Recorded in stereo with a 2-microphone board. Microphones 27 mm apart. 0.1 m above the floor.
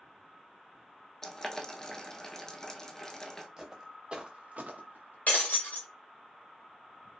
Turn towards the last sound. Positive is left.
turn(degrees=85)